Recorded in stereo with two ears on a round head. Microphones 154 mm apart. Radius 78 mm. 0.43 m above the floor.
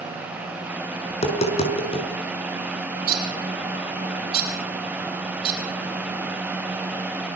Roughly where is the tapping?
Left.